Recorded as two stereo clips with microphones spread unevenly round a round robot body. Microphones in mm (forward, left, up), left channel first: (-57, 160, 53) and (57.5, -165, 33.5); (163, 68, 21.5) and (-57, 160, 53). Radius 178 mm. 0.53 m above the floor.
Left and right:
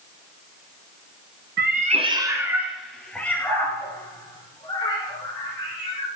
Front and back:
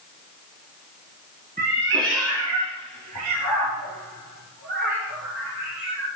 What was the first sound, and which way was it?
A cat meowing, 130° right.